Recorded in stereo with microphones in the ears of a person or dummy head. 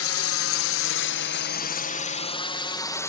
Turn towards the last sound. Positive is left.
turn(degrees=15)  # may be behind; listen again after turning